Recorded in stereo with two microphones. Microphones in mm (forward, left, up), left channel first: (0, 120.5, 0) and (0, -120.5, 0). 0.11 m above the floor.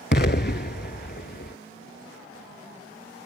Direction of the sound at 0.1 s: 45° left (ahead or behind).